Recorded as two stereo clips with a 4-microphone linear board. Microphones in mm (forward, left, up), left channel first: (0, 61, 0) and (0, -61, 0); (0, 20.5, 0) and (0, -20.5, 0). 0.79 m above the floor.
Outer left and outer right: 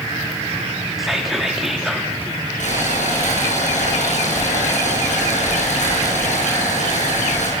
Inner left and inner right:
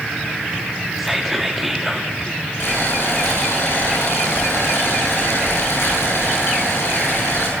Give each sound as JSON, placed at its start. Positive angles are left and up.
{"t": 1.0, "sound": "whispering", "side_deg": -5, "distance_m": 2.0}
{"t": 2.6, "sound": "boiling", "side_deg": 75, "distance_m": 9.5}